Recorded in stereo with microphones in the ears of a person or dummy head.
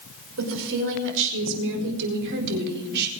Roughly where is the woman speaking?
Right.